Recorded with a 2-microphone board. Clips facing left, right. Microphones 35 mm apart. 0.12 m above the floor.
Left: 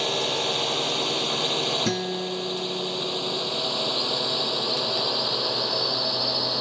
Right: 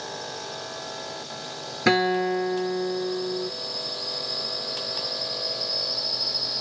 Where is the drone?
65° left (ahead or behind); by 6.6 s 50° left (ahead or behind).